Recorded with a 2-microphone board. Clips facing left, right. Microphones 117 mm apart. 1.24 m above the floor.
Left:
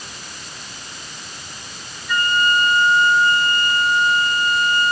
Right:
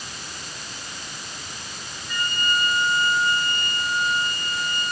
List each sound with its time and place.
2.1 s a flute: 85° left, 4 m